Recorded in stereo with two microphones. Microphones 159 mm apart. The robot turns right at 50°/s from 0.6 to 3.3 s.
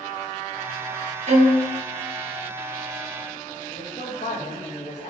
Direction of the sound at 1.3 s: 50° right (ahead or behind).